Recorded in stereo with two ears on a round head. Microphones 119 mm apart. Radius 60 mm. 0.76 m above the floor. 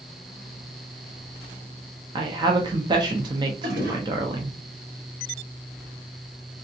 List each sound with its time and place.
2.1 s a woman speaking: 35° right (ahead or behind), 0.6 m
3.6 s a toilet flushing: 80° right, 1.9 m